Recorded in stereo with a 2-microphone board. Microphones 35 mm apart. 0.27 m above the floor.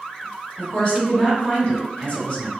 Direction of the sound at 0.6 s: 40° left (ahead or behind).